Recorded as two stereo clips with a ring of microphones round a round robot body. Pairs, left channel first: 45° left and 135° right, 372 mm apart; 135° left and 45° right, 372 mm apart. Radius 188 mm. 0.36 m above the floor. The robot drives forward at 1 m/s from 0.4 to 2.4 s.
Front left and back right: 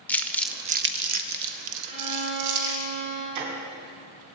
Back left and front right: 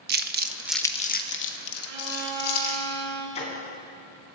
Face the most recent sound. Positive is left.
turn(degrees=-150)